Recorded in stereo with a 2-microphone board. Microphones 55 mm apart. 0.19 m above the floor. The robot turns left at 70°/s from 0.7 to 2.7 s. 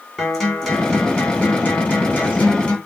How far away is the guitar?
About 1.5 m.